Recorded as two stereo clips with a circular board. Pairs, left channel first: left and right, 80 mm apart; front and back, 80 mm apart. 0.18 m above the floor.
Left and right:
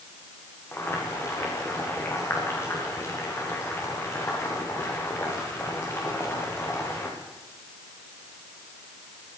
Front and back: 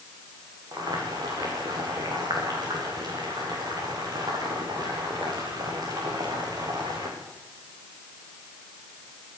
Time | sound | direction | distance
0.7 | boiling | 150° left | 7 m